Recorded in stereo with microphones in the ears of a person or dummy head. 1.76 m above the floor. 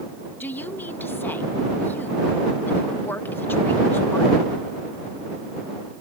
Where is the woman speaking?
10° left (ahead or behind).